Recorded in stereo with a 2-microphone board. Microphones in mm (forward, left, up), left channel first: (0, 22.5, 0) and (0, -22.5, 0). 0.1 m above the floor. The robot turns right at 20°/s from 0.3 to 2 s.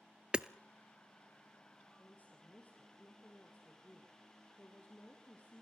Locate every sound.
0.3 s hammering: 20° right (ahead or behind), 0.5 m
2.0 s a woman speaking: 40° left (ahead or behind), 3 m